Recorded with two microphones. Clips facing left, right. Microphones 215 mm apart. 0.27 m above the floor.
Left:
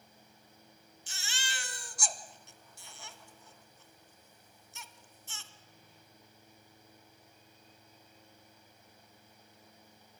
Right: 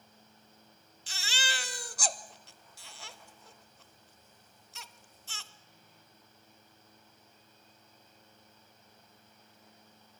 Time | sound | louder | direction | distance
1.1 | a baby crying | right 6 dB | 60° right (ahead or behind) | 0.7 m